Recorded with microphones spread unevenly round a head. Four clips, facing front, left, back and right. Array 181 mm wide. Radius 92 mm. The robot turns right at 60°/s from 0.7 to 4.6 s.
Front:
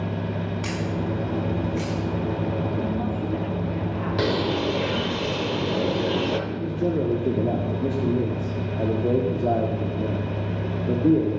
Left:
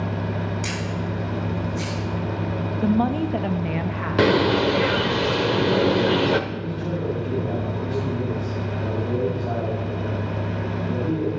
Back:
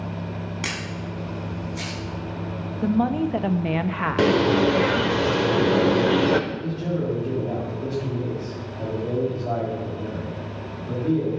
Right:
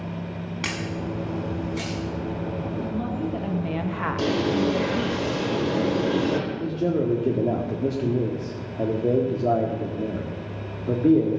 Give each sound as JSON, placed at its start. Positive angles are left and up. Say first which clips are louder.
{"t": 0.6, "sound": "a camera shutter", "louder": "left 2 dB, front 5 dB", "azimuth_deg": -140, "distance_m": 6.0}
{"t": 2.8, "sound": "a woman speaking", "louder": "left 11 dB, back 5 dB", "azimuth_deg": 120, "distance_m": 1.0}
{"t": 4.2, "sound": "a bird", "louder": "left 6 dB, back 6 dB", "azimuth_deg": 120, "distance_m": 1.1}
{"t": 6.5, "sound": "a man speaking", "louder": "right 4 dB, front 3 dB", "azimuth_deg": -50, "distance_m": 2.0}